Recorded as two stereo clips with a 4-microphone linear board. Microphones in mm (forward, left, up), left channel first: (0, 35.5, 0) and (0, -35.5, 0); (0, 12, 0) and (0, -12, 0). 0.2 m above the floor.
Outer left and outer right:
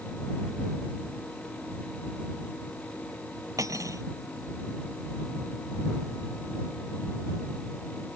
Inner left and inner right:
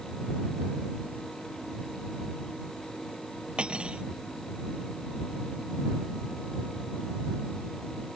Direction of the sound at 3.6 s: 50° right (ahead or behind).